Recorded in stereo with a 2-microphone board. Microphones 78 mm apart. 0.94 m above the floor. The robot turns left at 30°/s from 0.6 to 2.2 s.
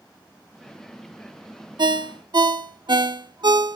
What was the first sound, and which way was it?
A ringtone, 60° right (ahead or behind).